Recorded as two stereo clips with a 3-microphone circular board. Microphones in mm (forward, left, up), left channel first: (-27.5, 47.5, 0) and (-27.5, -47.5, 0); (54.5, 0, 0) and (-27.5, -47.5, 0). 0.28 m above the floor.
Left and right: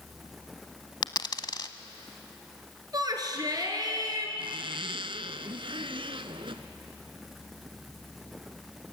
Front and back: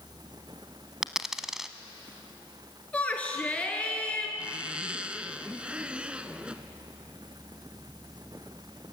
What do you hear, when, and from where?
1.0 s a dropped coin: 125° left, 0.9 m
2.9 s a shout: 45° right, 4.5 m
4.4 s a zipper: 70° right, 0.8 m